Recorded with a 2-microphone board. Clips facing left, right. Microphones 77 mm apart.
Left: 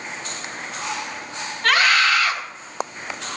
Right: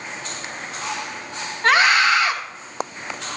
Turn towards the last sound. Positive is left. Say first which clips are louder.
# right 2 dB
turn(degrees=-25)  # may be behind; listen again after turning